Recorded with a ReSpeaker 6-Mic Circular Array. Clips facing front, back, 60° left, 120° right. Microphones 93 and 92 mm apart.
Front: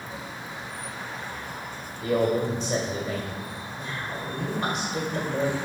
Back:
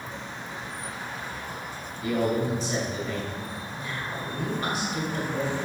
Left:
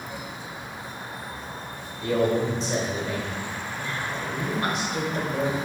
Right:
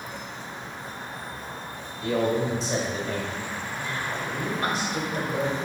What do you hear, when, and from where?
2.0 s a man speaking: straight ahead, 2 m